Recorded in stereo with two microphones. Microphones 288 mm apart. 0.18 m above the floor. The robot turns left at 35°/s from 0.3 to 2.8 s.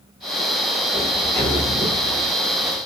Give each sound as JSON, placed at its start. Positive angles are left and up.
{"t": 0.9, "sound": "a sliding door", "azimuth_deg": -175, "distance_m": 1.5}